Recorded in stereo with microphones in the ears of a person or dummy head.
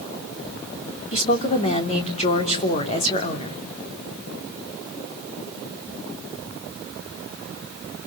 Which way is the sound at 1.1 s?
40° left (ahead or behind).